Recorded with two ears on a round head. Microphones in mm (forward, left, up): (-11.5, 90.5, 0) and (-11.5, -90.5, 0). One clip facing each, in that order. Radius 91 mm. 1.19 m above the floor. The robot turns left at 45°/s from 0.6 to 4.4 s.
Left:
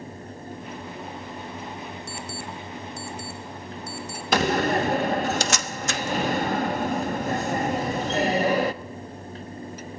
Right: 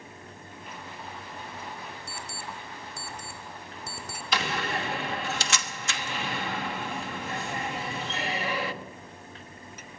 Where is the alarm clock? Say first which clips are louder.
Left 6 dB; 60° left (ahead or behind), 2 m; by 4.2 s 35° right (ahead or behind), 2 m.